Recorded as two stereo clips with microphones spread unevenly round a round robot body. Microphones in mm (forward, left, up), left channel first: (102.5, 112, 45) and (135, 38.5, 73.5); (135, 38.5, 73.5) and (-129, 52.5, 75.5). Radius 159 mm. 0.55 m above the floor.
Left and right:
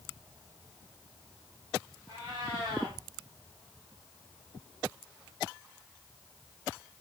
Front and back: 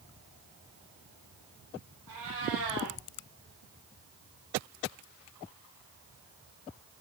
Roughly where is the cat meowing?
Behind.